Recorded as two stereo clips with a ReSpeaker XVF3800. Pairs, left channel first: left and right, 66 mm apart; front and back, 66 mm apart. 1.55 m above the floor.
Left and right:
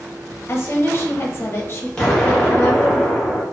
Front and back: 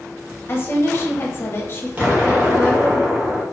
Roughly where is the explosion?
Behind left.